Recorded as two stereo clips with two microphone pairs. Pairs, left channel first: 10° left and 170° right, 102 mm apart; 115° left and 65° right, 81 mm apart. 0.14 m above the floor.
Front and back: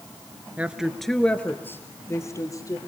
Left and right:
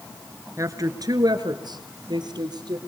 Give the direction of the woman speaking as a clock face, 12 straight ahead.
3 o'clock.